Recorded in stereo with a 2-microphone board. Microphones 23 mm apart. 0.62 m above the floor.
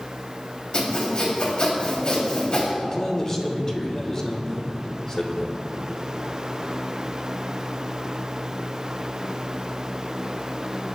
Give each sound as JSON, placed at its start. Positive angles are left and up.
{"t": 0.7, "sound": "sawing", "side_deg": 45, "distance_m": 4.5}
{"t": 2.8, "sound": "a man speaking", "side_deg": 30, "distance_m": 2.5}